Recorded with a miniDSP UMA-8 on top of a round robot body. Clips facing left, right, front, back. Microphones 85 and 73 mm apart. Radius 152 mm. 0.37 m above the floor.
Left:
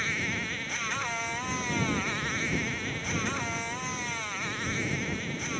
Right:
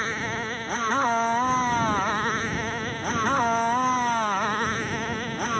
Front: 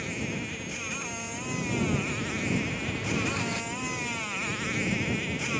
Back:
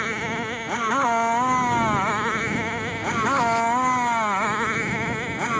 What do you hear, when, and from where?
0.0 s a motorcycle: 145° right; by 5.6 s 135° right